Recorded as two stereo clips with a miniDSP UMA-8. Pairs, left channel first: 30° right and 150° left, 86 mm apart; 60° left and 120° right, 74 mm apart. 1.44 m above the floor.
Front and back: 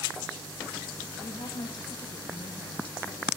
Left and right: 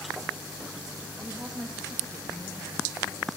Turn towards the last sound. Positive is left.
turn(degrees=-5)